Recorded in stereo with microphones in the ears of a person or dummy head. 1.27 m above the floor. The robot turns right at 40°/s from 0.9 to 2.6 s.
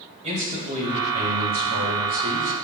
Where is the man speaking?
145° right, 2.5 m; by 2.5 s 80° right, 2.5 m.